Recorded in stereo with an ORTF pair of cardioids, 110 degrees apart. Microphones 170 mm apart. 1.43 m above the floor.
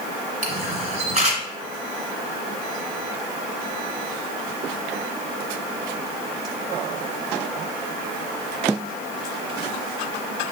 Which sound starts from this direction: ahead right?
A camera shutter, at 0.4 s.